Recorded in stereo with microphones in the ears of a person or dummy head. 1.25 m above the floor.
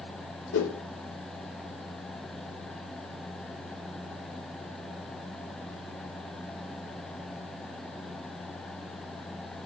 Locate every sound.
0.5 s a whoosh: 70° left (ahead or behind), 3 m